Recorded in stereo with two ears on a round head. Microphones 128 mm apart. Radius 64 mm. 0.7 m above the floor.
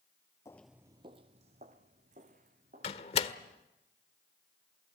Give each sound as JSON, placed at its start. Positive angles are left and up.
{"t": 0.5, "sound": "footsteps", "side_deg": 25, "distance_m": 0.7}
{"t": 2.8, "sound": "a door slam", "side_deg": 45, "distance_m": 1.5}